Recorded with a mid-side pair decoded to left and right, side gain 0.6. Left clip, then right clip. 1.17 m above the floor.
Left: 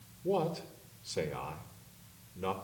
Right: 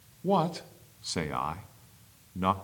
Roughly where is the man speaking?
Ahead right.